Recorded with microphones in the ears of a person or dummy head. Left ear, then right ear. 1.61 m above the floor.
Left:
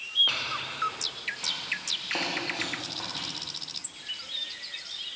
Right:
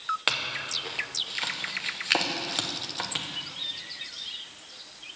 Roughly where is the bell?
I don't hear a bell.